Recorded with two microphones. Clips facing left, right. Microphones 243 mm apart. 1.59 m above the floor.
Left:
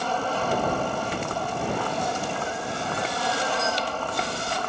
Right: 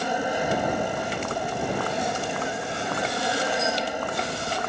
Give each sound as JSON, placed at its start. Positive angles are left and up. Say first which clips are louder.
{"t": 0.0, "sound": "an aircraft", "louder": "right 1 dB", "side_deg": -15}